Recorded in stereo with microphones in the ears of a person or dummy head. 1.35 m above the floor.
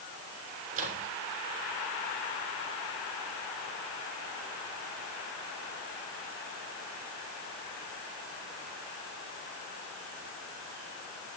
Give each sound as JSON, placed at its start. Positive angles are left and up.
{"t": 0.7, "sound": "a microwave", "side_deg": -45, "distance_m": 3.0}